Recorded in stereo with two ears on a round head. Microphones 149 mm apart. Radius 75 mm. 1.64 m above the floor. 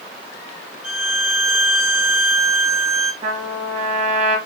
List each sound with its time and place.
0.8 s a violin: 5° right (ahead or behind), 1.8 m
3.2 s a trumpet: 40° right (ahead or behind), 1.7 m